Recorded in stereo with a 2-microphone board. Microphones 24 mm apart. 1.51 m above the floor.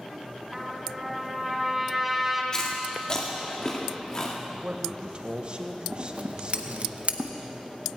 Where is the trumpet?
5° right (ahead or behind), 2.5 m.